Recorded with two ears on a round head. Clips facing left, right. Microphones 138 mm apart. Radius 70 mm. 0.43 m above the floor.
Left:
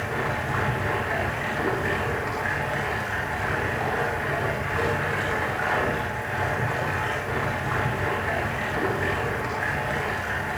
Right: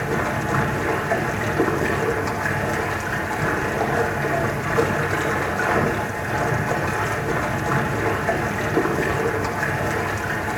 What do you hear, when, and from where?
0.0 s running water: 50° right (ahead or behind), 7 m